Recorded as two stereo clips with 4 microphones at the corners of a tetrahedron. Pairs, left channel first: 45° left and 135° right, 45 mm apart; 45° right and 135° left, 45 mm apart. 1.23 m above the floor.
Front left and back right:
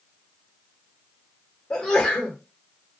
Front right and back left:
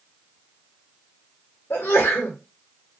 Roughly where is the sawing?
I don't hear sawing.